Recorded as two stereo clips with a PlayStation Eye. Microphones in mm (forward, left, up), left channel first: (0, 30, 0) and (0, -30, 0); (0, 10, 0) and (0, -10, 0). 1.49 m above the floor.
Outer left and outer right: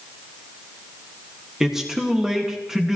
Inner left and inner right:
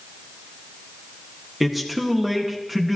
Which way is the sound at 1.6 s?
5° right (ahead or behind).